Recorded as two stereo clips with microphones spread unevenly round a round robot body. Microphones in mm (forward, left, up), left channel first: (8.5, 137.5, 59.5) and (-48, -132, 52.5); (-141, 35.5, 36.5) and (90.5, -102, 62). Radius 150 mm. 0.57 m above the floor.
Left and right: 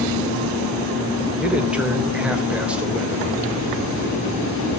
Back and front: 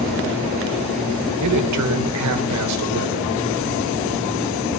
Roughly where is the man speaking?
Ahead.